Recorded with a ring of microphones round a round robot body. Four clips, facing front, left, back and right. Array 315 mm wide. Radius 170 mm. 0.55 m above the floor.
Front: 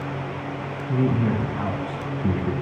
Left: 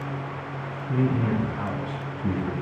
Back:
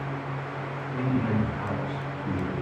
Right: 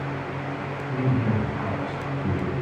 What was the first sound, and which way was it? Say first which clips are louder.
A man speaking: left 1 dB, front 5 dB; 15° left.